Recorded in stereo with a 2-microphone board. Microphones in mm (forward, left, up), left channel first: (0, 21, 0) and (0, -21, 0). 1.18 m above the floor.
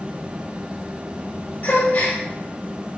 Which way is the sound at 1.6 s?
50° left (ahead or behind).